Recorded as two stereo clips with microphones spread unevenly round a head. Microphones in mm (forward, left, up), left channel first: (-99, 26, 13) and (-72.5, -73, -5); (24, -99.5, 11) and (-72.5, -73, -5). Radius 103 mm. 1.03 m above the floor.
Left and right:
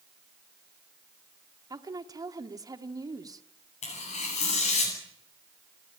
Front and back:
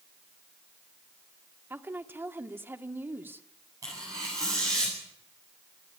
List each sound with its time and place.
1.7 s a woman speaking: 130° right, 2 m
3.8 s tearing paper: 90° left, 9.5 m